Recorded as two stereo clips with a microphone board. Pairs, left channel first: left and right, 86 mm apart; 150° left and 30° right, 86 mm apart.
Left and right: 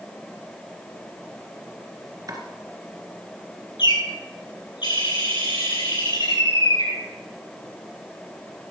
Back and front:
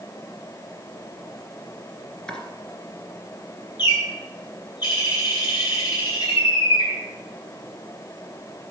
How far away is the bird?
About 7.5 m.